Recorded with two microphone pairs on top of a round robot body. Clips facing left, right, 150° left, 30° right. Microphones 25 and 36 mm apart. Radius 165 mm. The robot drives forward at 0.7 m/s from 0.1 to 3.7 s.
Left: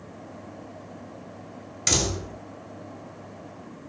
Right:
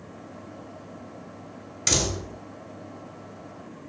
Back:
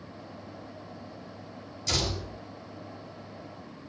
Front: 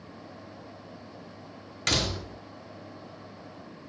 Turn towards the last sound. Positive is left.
turn(degrees=-5)